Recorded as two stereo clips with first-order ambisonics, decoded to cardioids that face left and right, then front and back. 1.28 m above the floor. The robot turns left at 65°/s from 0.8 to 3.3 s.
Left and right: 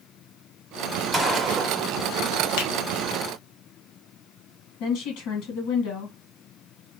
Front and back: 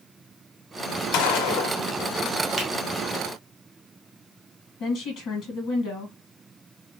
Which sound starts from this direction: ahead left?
A woman speaking, at 4.8 s.